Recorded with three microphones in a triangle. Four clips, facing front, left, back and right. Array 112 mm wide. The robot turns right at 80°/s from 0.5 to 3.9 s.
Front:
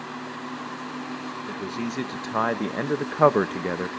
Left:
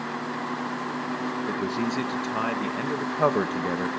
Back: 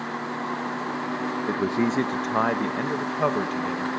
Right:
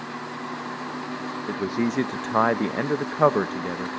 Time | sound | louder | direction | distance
1.5 | a man speaking | right 5 dB, back 8 dB | 170° right | 0.5 m